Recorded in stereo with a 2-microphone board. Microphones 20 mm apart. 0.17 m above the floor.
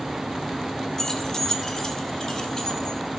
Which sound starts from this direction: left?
Keys jangling, at 1.0 s.